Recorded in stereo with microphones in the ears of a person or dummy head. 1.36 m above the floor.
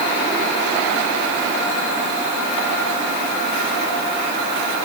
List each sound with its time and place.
Only background noise.